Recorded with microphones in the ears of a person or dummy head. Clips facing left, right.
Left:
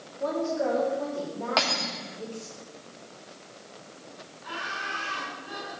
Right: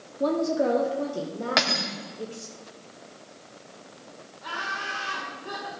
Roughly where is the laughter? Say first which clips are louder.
Right 2 dB; right.